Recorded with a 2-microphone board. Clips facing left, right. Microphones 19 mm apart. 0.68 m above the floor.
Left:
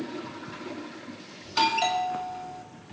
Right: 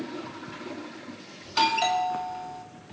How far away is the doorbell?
About 1.7 m.